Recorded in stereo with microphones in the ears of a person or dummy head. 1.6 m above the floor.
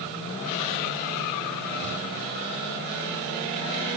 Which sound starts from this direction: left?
Ticking, at 1.8 s.